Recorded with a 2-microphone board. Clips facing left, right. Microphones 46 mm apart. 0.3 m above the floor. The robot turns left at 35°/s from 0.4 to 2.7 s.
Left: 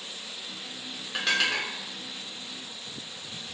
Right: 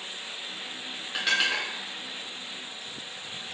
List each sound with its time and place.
1.1 s dishes clattering: 5° right (ahead or behind), 0.6 m; by 1.7 s 10° right (ahead or behind), 0.6 m